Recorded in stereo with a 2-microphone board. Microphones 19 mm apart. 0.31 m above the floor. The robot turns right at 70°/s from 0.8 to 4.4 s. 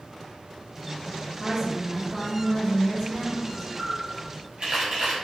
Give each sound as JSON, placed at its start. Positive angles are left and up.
{"t": 1.4, "sound": "a woman speaking", "side_deg": -20, "distance_m": 0.9}
{"t": 3.8, "sound": "a camera shutter", "side_deg": -25, "distance_m": 1.4}